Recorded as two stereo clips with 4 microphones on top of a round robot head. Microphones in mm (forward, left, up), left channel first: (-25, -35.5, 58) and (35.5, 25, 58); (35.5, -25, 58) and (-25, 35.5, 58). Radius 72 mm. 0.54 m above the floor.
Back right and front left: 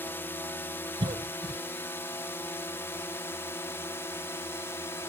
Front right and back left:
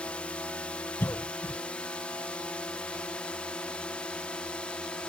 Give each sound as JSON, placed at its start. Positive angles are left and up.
{"t": 0.0, "sound": "a drone", "azimuth_deg": -105}
{"t": 1.0, "sound": "a cough", "azimuth_deg": 20}